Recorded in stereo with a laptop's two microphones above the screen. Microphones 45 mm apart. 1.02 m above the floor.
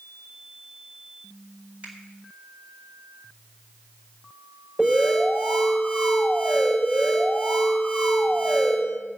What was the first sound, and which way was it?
A finger snap, 35° right (ahead or behind).